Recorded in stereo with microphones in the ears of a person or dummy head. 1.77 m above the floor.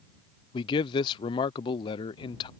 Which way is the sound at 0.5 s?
25° left (ahead or behind).